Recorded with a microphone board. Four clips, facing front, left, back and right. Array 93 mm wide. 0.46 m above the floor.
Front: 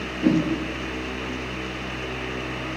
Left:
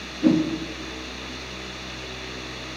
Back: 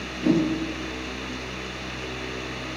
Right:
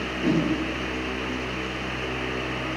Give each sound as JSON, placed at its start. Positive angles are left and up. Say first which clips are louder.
{"t": 0.2, "sound": "a whoosh", "louder": "left 5 dB, front 1 dB", "azimuth_deg": 65, "distance_m": 5.0}